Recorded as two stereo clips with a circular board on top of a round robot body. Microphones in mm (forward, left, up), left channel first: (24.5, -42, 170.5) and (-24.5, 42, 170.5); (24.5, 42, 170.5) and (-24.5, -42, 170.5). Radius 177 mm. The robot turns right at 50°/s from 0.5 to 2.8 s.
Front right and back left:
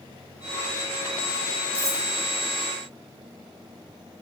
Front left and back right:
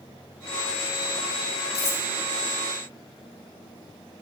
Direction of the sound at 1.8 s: 55° left.